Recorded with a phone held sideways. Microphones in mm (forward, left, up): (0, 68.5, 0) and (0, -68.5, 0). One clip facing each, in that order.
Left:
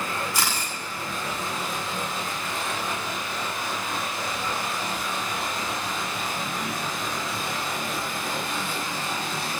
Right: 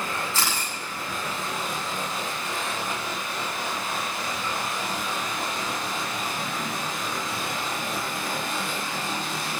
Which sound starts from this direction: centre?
A camera shutter, at 0.3 s.